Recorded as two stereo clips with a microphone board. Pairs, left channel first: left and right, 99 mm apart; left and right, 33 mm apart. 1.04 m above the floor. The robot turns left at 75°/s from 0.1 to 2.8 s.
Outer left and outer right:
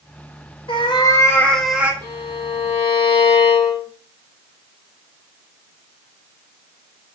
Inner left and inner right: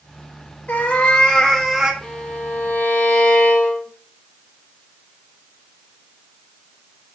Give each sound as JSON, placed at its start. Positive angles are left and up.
{"t": 0.7, "sound": "a cat meowing", "azimuth_deg": 70, "distance_m": 0.6}
{"t": 2.0, "sound": "a violin", "azimuth_deg": 150, "distance_m": 1.3}